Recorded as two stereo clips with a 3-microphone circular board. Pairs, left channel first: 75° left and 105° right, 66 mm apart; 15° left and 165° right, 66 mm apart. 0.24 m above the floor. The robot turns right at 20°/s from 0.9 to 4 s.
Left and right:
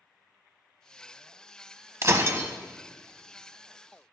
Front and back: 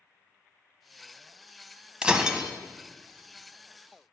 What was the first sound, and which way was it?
Breaking glass, 95° right.